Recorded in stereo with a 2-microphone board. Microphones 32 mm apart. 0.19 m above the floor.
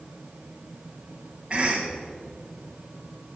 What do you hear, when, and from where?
1.5 s a cough: 30° right (ahead or behind), 1.1 m